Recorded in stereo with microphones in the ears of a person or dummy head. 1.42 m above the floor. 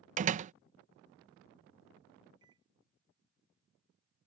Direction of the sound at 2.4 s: 25° right (ahead or behind).